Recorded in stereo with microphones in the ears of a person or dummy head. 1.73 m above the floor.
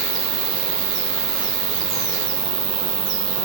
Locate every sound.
0.0 s an insect: 10° right (ahead or behind), 0.9 m